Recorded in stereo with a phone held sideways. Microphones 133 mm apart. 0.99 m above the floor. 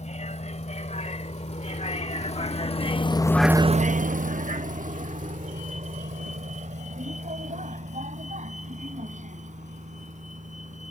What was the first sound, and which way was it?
A vehicle, 65° left (ahead or behind).